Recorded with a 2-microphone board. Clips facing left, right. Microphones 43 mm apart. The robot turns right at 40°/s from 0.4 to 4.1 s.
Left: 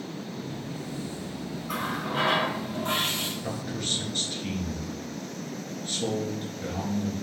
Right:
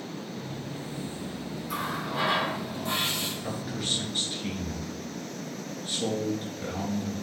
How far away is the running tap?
About 1.9 m.